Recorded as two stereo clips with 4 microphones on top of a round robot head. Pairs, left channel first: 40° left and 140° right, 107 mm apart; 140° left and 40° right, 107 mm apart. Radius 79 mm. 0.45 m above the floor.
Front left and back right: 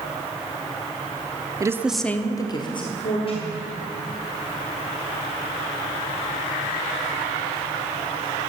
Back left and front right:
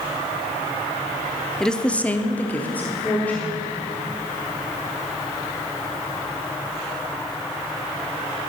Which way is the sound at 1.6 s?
140° right.